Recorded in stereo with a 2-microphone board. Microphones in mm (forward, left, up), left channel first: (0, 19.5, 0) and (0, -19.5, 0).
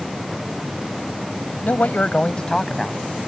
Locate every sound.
1.6 s a man speaking: 55° left (ahead or behind); by 3.0 s centre (ahead or behind)